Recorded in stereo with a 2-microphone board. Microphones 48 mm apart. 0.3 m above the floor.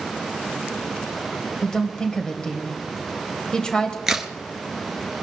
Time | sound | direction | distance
1.6 | a woman speaking | 15° left (ahead or behind) | 1.6 m
4.1 | a crack | 10° right (ahead or behind) | 1.9 m